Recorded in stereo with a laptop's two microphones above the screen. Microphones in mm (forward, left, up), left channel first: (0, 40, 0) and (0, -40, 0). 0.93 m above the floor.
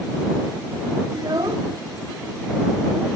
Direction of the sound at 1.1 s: 75° right (ahead or behind).